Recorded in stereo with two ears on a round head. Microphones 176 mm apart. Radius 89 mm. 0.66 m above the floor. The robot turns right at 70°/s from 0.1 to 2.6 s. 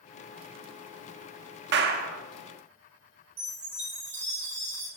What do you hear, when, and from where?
1.7 s a clap: 70° right, 0.6 m; by 2.2 s 40° right, 0.6 m
3.4 s a chime: 30° right (ahead or behind), 3.5 m